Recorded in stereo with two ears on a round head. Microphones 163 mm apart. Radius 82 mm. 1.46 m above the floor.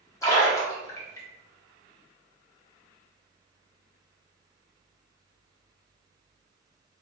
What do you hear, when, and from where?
0.2 s a splash: 15° left (ahead or behind), 1.8 m